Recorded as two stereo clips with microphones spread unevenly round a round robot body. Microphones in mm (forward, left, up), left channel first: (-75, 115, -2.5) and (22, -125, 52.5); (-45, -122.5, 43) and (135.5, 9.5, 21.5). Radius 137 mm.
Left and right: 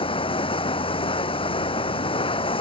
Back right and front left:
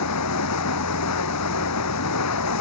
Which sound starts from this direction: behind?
Running water, at 0.0 s.